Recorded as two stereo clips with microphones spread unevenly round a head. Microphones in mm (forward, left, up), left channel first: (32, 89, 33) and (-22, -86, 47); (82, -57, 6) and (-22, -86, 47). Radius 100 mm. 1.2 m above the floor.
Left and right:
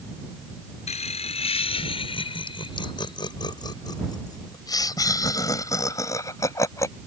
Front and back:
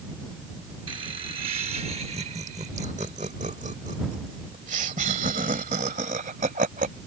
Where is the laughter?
130° left; by 6.9 s 150° left.